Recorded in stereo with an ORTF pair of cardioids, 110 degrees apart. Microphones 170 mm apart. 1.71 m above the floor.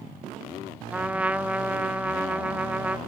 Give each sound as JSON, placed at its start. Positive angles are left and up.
{"t": 0.9, "sound": "a trumpet", "azimuth_deg": -10, "distance_m": 1.0}